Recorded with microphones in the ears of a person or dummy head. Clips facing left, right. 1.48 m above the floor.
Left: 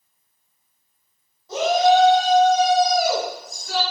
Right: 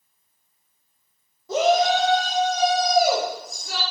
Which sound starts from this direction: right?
A shout, at 1.5 s.